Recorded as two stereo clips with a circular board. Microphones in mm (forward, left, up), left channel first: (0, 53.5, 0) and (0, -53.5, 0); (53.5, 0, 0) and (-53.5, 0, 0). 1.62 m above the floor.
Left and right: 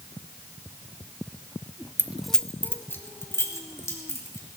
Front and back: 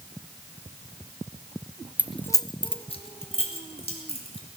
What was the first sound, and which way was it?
Keys jangling, 130° right.